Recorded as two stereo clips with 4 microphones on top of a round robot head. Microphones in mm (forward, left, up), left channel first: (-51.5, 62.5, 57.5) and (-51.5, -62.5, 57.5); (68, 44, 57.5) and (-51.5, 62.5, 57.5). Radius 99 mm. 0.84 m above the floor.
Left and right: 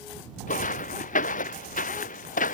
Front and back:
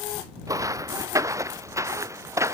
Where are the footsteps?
110° left; by 2.5 s 105° left.